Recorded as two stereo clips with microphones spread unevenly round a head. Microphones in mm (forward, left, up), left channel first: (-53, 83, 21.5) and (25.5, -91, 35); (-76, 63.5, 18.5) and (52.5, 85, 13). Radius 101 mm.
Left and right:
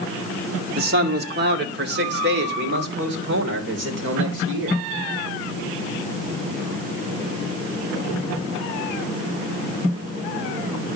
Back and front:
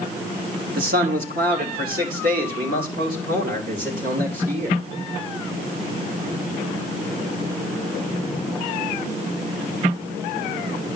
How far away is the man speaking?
About 1.3 m.